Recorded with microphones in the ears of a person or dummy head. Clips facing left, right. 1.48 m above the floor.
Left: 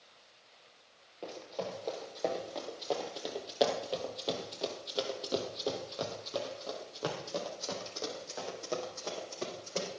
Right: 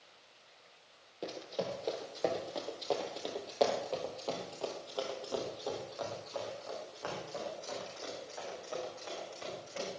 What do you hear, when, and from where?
1.2 s running footsteps: 20° right (ahead or behind), 4 m; by 9.9 s 75° left (ahead or behind), 5.5 m